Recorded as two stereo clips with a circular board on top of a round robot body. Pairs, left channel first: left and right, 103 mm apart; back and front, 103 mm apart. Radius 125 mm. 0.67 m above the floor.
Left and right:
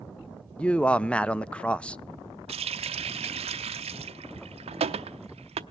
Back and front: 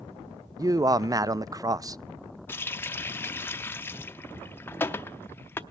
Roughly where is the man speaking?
Ahead.